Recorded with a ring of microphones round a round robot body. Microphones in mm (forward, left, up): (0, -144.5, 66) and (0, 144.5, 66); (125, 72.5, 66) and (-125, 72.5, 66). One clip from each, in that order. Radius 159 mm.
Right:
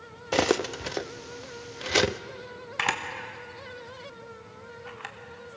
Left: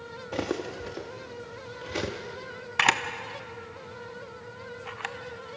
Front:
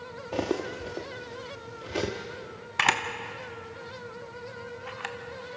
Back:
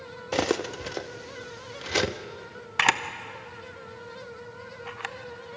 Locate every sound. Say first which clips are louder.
0.3 s cutlery clinking: right 7 dB, back 4 dB; 135° right, 0.5 m
2.8 s a camera shutter: left 5 dB, back 1 dB; 130° left, 1.1 m